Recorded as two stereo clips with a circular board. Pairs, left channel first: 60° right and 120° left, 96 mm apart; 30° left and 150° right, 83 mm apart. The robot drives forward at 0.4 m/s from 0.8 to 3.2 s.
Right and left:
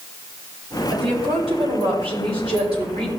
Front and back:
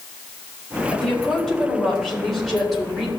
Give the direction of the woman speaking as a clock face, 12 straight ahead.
8 o'clock.